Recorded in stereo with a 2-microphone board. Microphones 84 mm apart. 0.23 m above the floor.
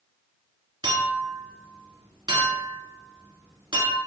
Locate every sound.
0.8 s a clink: 65° right (ahead or behind), 1.5 m